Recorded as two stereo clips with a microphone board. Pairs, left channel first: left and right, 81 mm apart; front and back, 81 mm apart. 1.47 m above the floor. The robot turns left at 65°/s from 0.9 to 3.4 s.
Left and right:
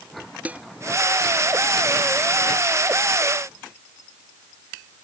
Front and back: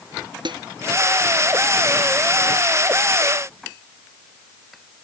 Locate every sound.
0.5 s dishes clattering: 160° right